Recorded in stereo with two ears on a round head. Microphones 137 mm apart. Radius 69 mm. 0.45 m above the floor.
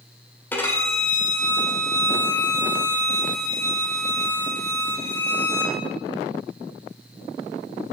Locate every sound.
0.5 s a violin: 15° left (ahead or behind), 1.4 m